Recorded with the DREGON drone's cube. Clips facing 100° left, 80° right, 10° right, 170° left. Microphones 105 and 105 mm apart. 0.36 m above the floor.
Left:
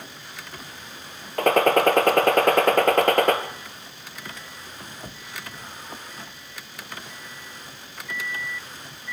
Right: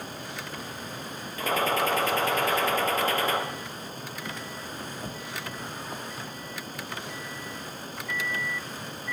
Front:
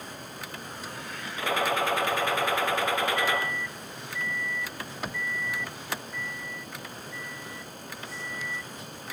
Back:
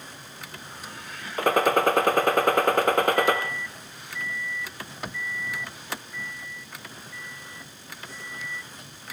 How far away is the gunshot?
About 2 m.